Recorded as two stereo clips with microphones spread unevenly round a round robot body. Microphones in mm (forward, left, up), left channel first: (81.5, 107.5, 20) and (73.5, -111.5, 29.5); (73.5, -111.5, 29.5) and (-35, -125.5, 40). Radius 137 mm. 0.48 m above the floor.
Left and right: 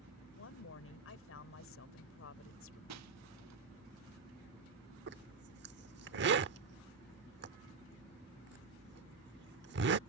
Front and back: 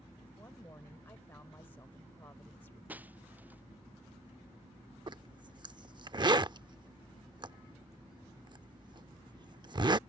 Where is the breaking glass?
95° right.